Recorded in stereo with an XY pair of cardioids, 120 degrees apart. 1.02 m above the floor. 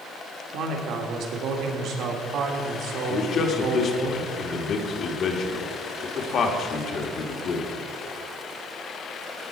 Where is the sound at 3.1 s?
55° left, 1.6 m.